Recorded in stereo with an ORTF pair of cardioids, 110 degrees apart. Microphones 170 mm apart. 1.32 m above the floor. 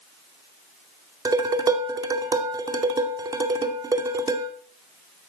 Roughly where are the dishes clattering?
Ahead right.